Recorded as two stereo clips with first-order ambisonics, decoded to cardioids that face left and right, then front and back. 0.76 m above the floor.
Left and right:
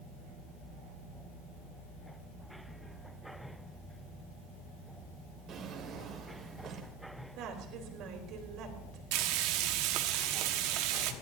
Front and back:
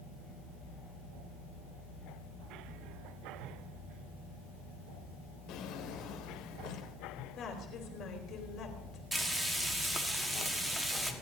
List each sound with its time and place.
5.5 s a drawer: 35° right, 1.7 m
7.4 s a woman speaking: 50° right, 3 m
9.1 s frying: 95° right, 1.2 m